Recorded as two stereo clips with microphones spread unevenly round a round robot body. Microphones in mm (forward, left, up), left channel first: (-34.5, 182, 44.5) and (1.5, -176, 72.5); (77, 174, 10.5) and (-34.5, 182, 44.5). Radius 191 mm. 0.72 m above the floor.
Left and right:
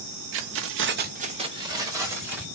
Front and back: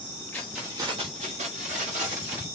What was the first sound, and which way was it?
Keys jangling, 40° right.